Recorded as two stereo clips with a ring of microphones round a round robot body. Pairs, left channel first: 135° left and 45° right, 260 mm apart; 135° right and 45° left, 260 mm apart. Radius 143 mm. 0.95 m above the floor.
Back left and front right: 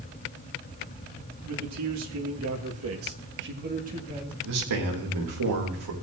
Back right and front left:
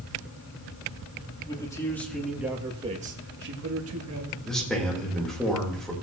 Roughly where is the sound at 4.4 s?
Ahead right.